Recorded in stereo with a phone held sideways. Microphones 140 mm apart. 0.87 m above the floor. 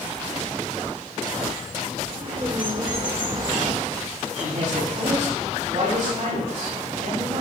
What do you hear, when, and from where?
2.1 s a bird: 35° right (ahead or behind), 3 m
4.3 s a man speaking: 55° right (ahead or behind), 6.5 m